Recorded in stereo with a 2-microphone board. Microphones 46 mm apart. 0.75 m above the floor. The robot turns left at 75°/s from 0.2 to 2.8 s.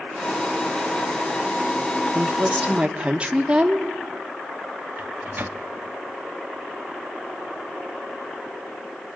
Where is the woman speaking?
100° right, 1.7 m; by 3.9 s 150° right, 1.7 m.